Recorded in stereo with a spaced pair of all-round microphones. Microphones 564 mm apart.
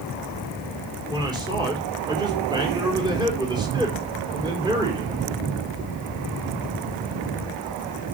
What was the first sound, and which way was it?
A man speaking, 5° right (ahead or behind).